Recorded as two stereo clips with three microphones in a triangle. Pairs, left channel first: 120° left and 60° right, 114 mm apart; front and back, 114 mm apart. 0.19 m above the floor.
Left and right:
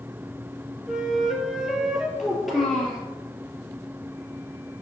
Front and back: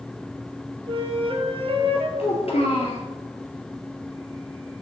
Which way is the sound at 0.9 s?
145° right.